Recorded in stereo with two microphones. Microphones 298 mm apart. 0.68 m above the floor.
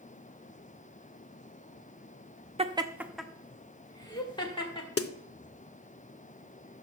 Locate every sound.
2.6 s laughter: 20° right (ahead or behind), 0.5 m; by 4.9 s 15° left (ahead or behind), 1.8 m
5.0 s a snare drum: 50° left (ahead or behind), 0.5 m